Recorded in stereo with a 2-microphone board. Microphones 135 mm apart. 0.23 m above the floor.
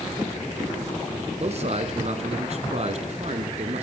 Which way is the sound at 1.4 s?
50° right (ahead or behind).